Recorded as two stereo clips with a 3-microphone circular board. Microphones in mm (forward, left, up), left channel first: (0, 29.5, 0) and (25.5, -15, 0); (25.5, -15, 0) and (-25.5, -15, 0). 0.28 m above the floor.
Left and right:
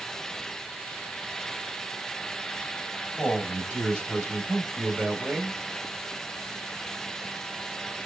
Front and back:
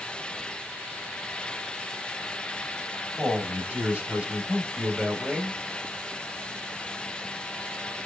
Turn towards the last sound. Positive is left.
turn(degrees=-135)